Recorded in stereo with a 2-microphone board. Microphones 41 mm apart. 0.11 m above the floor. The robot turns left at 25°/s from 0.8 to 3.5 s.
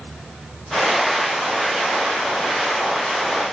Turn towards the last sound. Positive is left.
No sound to turn to.